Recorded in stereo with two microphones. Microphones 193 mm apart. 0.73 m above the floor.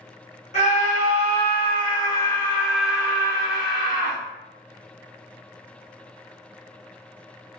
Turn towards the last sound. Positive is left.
turn(degrees=-30)  # may be behind; listen again after turning